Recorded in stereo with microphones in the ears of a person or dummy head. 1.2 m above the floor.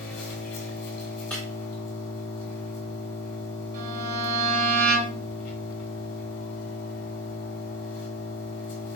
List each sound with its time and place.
0.0 s an engine running: 40° left (ahead or behind), 1.2 m
1.3 s breaking glass: 5° left (ahead or behind), 1.2 m
3.7 s a violin: 75° right (ahead or behind), 1.4 m